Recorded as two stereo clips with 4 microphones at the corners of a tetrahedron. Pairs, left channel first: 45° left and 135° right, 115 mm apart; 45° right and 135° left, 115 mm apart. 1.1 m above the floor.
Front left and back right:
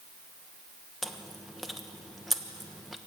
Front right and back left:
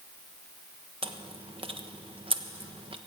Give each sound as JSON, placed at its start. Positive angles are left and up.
{"t": 1.0, "sound": "chewing", "azimuth_deg": 135, "distance_m": 1.1}